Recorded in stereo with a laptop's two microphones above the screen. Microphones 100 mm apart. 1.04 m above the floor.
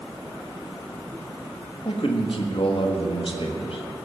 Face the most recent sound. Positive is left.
turn(degrees=60)  # may be behind; listen again after turning